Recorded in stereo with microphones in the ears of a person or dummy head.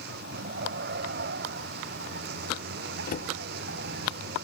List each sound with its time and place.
0.0 s a vehicle: 60° right (ahead or behind)
3.1 s a cupboard door: 50° left (ahead or behind)